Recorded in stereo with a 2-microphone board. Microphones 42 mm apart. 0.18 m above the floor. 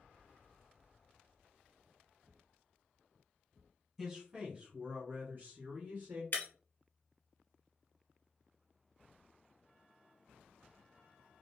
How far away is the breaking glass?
About 1.1 m.